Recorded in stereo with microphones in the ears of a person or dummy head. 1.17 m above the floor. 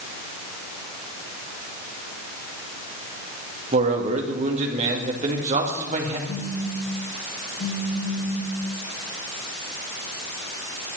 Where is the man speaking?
40° right (ahead or behind), 2.5 m.